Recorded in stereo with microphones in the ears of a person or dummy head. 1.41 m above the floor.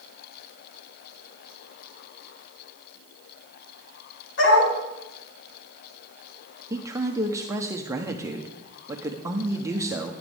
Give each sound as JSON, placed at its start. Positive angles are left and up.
{"t": 4.4, "sound": "a dog barking", "side_deg": 70, "distance_m": 3.5}
{"t": 6.7, "sound": "a man speaking", "side_deg": -10, "distance_m": 1.0}